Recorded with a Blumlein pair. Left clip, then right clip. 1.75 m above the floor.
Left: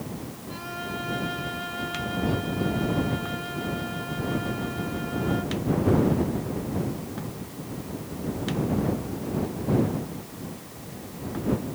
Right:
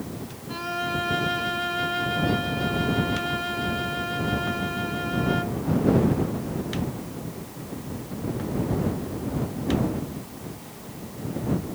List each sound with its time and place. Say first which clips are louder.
0.5 s a violin: right 7 dB; 20° right